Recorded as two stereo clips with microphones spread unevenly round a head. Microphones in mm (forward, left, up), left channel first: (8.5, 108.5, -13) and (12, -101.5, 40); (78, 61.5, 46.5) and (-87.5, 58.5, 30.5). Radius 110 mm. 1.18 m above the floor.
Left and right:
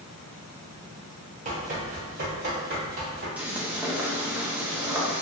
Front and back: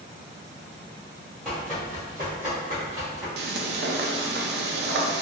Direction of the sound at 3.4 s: 175° right.